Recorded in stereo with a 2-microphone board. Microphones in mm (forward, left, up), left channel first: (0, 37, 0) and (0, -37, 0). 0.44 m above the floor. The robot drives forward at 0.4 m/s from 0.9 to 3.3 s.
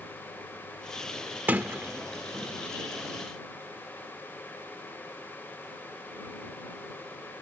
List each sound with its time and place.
1.5 s a sliding door: 25° right (ahead or behind)